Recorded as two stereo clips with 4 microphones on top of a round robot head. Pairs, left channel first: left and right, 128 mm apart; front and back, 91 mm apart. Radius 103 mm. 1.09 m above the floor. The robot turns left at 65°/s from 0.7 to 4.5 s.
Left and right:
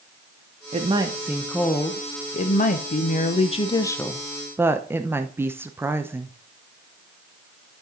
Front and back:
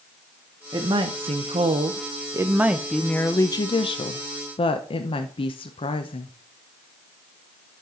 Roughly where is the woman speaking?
Behind right.